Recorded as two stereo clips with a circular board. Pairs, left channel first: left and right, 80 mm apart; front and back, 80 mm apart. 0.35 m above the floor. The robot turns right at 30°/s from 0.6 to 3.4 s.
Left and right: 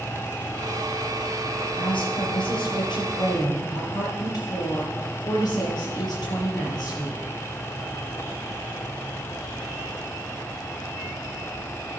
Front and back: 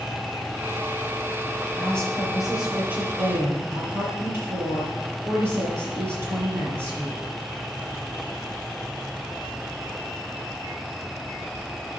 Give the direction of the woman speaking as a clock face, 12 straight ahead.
10 o'clock.